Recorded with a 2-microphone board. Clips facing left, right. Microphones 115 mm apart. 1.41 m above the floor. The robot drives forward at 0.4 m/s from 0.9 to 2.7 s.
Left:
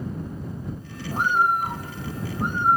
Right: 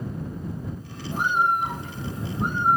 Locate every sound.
1.1 s a bird: 40° left (ahead or behind), 1.2 m; by 2.8 s 25° left (ahead or behind), 1.7 m